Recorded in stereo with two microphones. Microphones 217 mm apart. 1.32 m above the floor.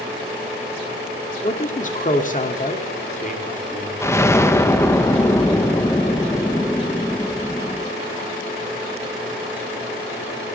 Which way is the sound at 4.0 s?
15° left (ahead or behind).